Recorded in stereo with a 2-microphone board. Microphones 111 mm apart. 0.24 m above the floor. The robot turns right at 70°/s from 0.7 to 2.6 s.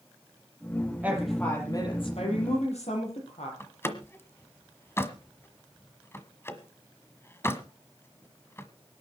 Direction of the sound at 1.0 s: 15° right.